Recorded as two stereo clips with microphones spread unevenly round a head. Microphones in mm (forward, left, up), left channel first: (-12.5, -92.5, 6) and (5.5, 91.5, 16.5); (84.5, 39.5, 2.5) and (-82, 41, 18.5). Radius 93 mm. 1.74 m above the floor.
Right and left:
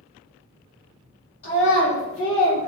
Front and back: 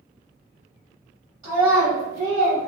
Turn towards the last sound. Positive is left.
turn(degrees=-115)